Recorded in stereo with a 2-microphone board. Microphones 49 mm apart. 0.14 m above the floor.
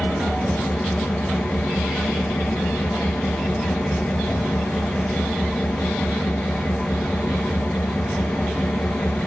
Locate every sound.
0.0 s an engine running: 25° left (ahead or behind), 1.8 m